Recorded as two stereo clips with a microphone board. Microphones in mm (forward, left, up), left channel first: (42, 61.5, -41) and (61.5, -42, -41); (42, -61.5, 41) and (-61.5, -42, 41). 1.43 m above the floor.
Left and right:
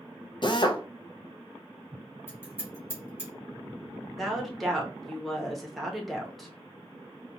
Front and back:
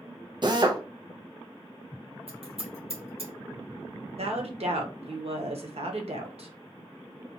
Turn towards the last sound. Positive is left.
turn(degrees=-170)